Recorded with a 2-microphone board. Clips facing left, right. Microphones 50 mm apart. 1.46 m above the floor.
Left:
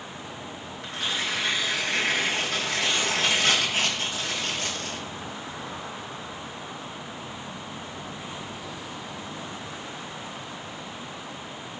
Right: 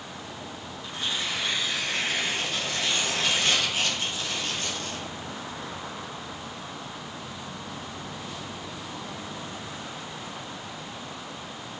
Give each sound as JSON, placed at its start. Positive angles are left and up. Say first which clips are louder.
{"t": 0.8, "sound": "tearing paper", "louder": "left 2 dB", "side_deg": 80, "distance_m": 1.8}